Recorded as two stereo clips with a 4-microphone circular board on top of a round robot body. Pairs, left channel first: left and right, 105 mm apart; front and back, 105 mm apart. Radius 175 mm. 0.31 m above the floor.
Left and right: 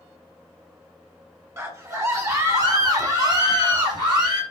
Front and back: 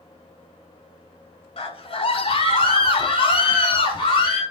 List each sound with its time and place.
1.6 s a scream: 25° right, 3 m; by 4.4 s 40° right, 5 m